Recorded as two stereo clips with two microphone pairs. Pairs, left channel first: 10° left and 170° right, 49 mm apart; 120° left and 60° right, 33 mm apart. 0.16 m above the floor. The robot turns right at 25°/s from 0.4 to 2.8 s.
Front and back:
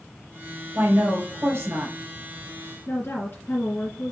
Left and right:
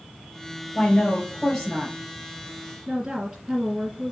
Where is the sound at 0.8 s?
165° left, 3 m; by 1.9 s 165° right, 3 m.